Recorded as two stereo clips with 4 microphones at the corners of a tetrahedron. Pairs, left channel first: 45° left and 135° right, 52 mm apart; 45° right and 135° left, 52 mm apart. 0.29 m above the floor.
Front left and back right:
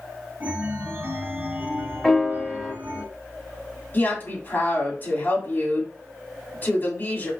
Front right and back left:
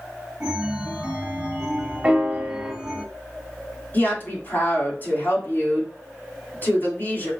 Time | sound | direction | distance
0.4 | a chime | 165° right | 1.2 m
2.0 | a piano | 100° left | 0.9 m
3.9 | a woman speaking | straight ahead | 2 m